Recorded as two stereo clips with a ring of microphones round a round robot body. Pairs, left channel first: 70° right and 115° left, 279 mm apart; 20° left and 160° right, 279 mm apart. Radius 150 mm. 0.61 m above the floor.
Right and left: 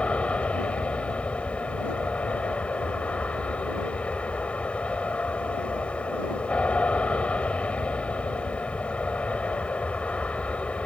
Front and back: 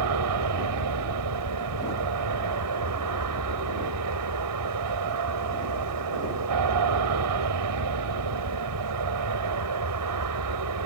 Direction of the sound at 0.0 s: 155° right.